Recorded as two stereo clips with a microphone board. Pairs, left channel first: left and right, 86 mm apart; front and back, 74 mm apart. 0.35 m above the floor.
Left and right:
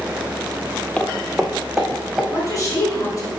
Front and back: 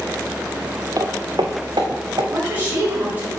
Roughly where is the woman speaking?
Behind left.